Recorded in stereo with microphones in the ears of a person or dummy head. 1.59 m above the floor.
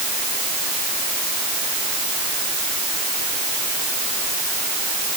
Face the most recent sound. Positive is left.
No sound to turn to.